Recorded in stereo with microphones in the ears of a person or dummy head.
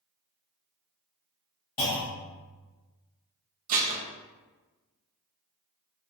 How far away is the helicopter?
I don't hear a helicopter.